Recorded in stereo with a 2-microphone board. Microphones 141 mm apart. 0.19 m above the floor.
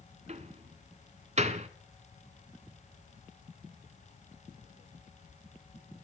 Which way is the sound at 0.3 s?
55° right (ahead or behind).